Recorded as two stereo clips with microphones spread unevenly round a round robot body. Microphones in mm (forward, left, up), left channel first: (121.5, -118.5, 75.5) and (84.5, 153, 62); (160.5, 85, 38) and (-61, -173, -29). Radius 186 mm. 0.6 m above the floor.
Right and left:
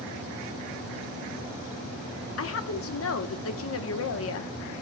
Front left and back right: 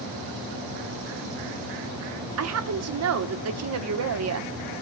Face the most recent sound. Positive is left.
turn(degrees=-110)